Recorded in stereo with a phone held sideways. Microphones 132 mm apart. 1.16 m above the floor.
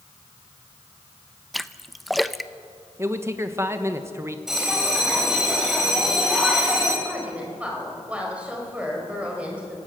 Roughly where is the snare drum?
No snare drum in this recording.